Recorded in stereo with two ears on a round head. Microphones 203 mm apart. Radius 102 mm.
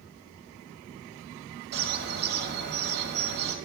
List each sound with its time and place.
1.7 s a bird: 45° right (ahead or behind), 1.0 m